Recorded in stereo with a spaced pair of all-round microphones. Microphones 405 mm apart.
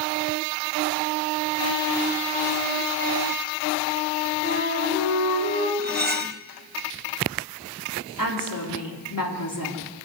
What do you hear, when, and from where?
4.4 s a flute: 30° left (ahead or behind), 5 m
5.8 s cutlery clinking: 25° right (ahead or behind), 0.7 m
8.2 s a woman speaking: 55° left (ahead or behind), 3.5 m